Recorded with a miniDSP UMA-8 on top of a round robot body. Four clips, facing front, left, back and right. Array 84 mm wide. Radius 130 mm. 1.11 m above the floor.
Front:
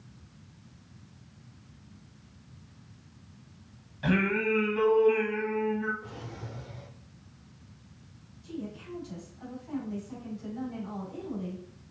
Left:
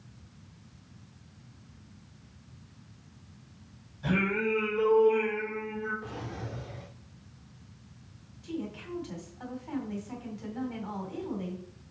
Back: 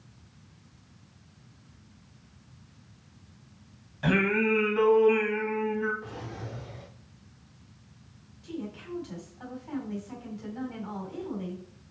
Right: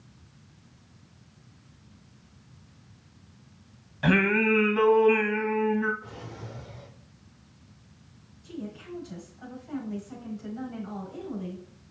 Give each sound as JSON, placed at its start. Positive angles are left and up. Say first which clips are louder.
{"t": 4.0, "sound": "singing", "louder": "right 6 dB, back 2 dB", "azimuth_deg": -105, "distance_m": 1.8}
{"t": 6.0, "sound": "a drawer", "louder": "left 3 dB, back 3 dB", "azimuth_deg": 130, "distance_m": 0.8}
{"t": 8.4, "sound": "a woman speaking", "louder": "left 2 dB, back 1 dB", "azimuth_deg": 125, "distance_m": 4.5}